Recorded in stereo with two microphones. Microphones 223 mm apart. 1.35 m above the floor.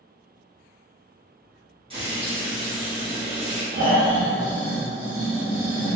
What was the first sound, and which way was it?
Frying, 25° right (ahead or behind).